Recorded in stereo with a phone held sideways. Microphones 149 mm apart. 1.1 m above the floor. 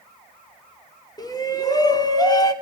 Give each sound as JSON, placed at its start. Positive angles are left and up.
{"t": 1.2, "sound": "a shout", "side_deg": 25, "distance_m": 2.5}